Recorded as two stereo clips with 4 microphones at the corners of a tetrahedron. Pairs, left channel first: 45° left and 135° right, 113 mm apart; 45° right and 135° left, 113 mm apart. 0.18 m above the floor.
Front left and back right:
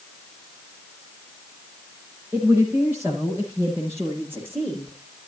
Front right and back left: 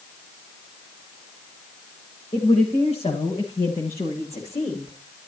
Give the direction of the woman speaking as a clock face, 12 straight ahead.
2 o'clock.